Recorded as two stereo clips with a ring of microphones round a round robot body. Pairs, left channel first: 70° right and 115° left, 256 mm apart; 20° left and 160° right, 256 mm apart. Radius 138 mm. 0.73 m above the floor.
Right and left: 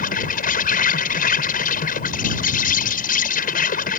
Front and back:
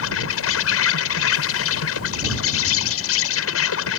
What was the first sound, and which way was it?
An insect, 10° right.